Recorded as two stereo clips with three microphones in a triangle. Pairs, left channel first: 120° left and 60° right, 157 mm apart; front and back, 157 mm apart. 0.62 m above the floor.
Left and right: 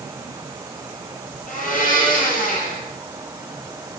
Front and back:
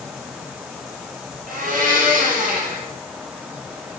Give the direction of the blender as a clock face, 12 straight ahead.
7 o'clock.